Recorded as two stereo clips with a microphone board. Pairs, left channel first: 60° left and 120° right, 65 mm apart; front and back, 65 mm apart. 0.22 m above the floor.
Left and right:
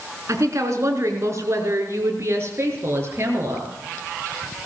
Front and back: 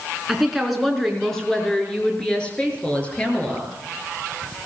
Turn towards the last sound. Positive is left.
turn(degrees=-65)